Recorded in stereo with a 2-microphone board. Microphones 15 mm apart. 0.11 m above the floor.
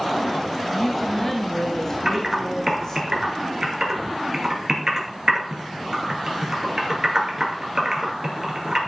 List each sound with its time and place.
0.7 s a woman speaking: 5° left (ahead or behind), 1.1 m; by 3.0 s 40° left (ahead or behind), 2.5 m
2.0 s typing on a keyboard: 35° right (ahead or behind), 2 m